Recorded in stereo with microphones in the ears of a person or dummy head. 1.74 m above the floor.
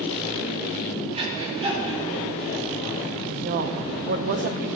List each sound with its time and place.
1.1 s breathing: 35° right (ahead or behind), 1.6 m
3.4 s a woman speaking: 45° right (ahead or behind), 0.6 m